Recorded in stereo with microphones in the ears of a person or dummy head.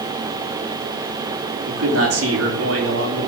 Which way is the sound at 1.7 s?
80° right.